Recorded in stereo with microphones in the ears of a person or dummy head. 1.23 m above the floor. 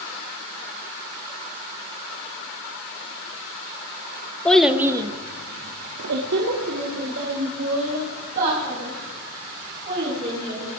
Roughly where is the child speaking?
Centre.